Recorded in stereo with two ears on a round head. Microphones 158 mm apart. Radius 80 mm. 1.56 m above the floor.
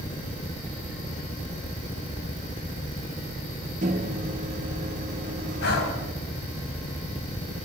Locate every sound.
3.8 s a microwave: 40° right (ahead or behind), 1.4 m
5.6 s breathing: 65° left (ahead or behind), 4.5 m